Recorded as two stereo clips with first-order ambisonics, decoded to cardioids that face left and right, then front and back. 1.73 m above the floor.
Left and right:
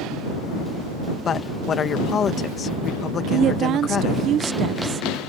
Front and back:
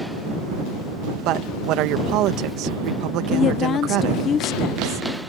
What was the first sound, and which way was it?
A woman speaking, 150° left.